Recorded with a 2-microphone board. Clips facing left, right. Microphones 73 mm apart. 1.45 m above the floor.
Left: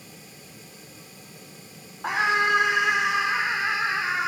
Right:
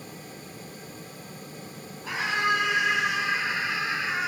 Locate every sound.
2.0 s a scream: 85° left, 5.5 m; by 4.3 s 80° left, 6 m